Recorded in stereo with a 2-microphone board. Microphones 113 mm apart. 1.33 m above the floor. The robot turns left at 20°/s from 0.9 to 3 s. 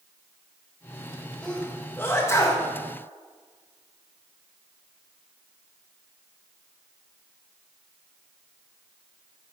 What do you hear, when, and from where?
1.4 s a sneeze: 10° left (ahead or behind), 1.8 m; by 2.6 s 30° left (ahead or behind), 1.8 m